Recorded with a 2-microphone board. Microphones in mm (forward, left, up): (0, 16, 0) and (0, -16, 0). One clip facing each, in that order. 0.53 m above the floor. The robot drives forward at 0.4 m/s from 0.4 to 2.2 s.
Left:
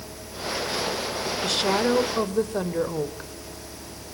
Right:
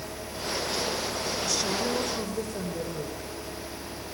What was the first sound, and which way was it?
A woman speaking, 60° left (ahead or behind).